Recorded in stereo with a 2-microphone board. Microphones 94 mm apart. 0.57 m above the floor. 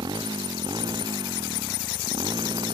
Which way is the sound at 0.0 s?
50° right (ahead or behind).